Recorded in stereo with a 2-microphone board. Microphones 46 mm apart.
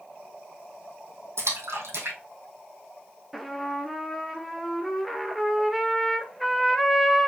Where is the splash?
70° right (ahead or behind), 2.5 m.